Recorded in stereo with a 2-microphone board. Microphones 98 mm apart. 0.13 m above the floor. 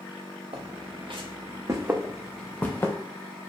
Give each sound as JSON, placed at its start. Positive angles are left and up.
{"t": 0.5, "sound": "footsteps", "side_deg": -75, "distance_m": 1.0}